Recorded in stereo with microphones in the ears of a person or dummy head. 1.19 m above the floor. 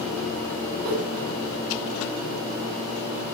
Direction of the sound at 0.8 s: 45° right (ahead or behind).